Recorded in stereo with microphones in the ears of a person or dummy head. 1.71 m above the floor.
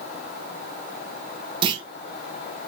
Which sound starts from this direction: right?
A clunk, at 1.6 s.